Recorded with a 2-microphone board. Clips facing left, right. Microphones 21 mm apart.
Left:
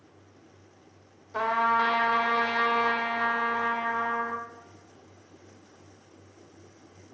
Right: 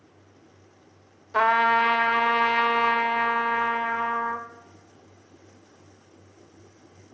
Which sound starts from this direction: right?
A trumpet, at 1.3 s.